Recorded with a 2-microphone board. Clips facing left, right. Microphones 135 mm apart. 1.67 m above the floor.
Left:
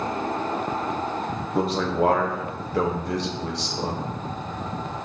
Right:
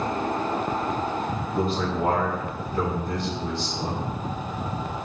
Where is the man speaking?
85° left, 1.3 m.